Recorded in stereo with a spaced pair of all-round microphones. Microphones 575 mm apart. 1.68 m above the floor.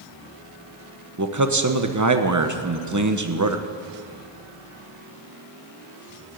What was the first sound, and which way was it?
A man speaking, 30° right (ahead or behind).